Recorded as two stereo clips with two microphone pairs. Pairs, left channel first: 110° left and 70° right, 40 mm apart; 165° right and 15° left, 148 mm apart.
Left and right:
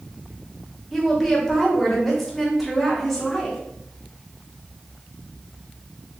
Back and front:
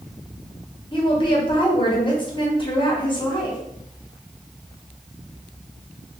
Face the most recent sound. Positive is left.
turn(degrees=-170)